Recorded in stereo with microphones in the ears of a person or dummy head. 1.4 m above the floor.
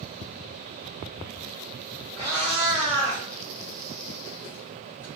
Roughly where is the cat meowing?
Centre.